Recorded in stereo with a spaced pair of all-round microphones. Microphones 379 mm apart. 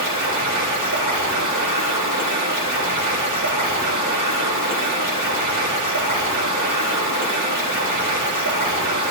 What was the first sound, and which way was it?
Running water, 50° right (ahead or behind).